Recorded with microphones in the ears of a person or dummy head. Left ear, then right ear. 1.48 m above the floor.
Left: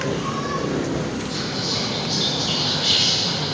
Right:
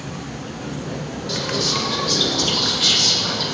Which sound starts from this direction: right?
Whispering, at 1.3 s.